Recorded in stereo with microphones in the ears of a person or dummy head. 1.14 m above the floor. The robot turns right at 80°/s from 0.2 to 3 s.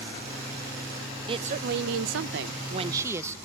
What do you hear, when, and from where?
1.3 s a woman speaking: 155° right, 0.7 m; by 3.4 s 20° right, 0.7 m